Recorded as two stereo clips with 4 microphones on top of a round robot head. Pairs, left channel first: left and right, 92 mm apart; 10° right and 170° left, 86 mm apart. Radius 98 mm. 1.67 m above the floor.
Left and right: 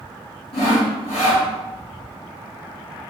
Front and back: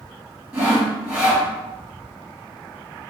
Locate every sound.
0.5 s sawing: 105° left, 2 m